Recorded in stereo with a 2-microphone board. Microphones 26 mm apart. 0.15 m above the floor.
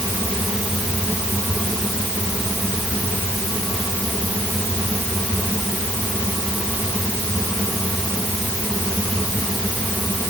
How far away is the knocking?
I don't hear knocking.